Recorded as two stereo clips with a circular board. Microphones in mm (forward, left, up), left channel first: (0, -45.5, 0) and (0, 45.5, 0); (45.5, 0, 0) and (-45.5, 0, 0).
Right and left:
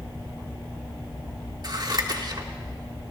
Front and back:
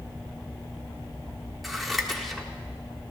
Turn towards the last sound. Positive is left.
turn(degrees=90)